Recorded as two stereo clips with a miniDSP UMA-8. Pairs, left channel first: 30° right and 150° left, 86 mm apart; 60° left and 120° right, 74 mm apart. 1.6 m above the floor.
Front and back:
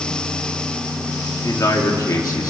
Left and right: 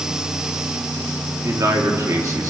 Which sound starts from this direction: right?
A man speaking, at 1.4 s.